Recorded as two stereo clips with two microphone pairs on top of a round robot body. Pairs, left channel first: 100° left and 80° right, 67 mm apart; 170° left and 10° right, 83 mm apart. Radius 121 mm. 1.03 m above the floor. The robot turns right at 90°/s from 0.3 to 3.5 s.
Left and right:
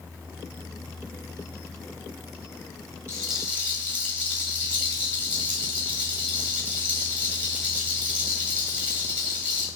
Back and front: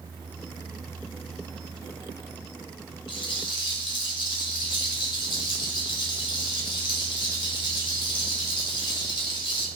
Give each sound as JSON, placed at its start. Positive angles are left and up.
{"t": 3.1, "sound": "a rattle", "azimuth_deg": 170, "distance_m": 2.0}